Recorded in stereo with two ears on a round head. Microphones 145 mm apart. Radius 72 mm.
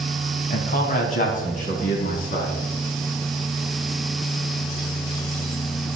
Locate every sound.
0.5 s a man speaking: 50° left (ahead or behind), 3 m